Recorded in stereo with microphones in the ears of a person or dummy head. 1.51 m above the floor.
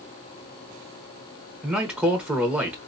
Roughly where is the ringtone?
I don't hear a ringtone.